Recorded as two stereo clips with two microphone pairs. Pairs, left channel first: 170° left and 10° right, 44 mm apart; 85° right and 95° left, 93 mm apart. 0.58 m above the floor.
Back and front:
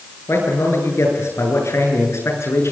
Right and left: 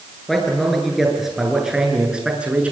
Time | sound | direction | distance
0.3 | a man speaking | 170° right | 9 m